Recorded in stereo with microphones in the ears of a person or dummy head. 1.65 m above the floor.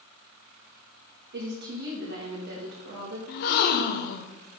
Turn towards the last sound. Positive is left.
turn(degrees=55)  # may be behind; listen again after turning